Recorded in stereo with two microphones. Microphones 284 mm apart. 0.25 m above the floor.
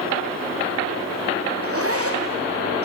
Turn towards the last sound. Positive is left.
turn(degrees=-55)  # may be behind; listen again after turning